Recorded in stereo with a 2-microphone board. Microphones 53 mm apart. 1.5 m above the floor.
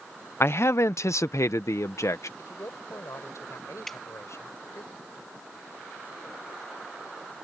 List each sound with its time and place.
0.4 s a man speaking: 55° left (ahead or behind); by 2.3 s 75° left (ahead or behind)
2.4 s a man speaking: 75° left (ahead or behind)
3.9 s dripping: 5° left (ahead or behind)